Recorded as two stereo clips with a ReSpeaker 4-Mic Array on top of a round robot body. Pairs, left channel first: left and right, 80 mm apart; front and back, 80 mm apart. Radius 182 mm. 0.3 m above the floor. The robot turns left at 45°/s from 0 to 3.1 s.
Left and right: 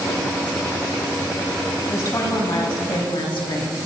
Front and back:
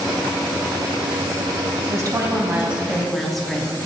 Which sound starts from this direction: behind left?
A woman speaking, at 1.9 s.